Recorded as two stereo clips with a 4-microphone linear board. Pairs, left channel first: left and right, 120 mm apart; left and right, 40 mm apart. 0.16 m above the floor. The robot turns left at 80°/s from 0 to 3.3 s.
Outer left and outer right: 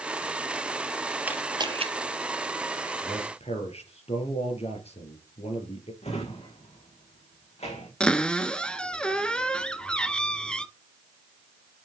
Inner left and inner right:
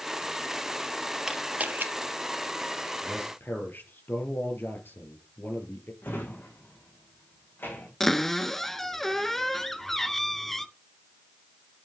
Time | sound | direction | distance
1.2 | a camera shutter | 10° right (ahead or behind) | 3 m
3.0 | a man speaking | 45° left (ahead or behind) | 4 m
6.0 | a drawer | 65° left (ahead or behind) | 5.5 m
8.0 | a cupboard door | 10° left (ahead or behind) | 1.1 m